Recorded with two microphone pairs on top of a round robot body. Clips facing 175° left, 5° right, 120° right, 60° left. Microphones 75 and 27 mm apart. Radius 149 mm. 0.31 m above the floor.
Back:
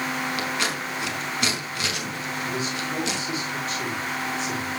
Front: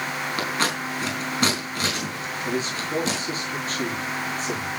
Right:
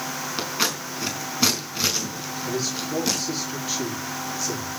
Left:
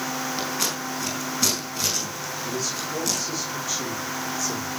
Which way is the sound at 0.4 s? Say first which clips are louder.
Front 2 dB, right 1 dB; 55° right.